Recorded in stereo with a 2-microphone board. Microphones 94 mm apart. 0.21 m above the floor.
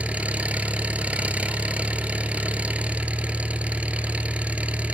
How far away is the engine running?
About 1.0 m.